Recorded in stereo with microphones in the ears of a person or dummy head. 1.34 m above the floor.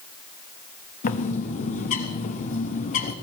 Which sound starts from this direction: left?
A bird, at 1.0 s.